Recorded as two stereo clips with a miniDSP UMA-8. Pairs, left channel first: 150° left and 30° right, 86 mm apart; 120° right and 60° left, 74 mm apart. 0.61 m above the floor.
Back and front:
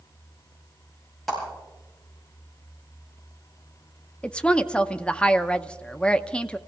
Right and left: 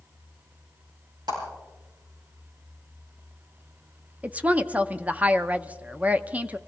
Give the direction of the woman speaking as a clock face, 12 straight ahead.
9 o'clock.